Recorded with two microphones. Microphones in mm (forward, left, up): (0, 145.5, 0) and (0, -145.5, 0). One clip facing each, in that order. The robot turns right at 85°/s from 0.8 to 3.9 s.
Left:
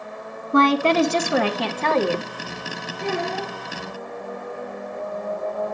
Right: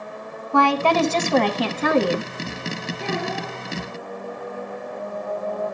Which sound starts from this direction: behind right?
A child speaking, at 3.0 s.